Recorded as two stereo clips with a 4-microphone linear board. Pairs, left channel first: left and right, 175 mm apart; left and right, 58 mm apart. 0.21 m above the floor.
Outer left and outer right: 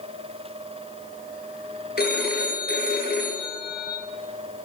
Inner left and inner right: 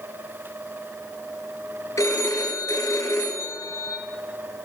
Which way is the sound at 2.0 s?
65° left (ahead or behind).